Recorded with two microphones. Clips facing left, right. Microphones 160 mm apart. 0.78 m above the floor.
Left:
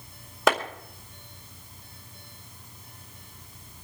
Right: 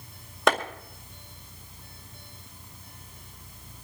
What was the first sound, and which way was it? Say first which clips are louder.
A clap: even; centre (ahead or behind).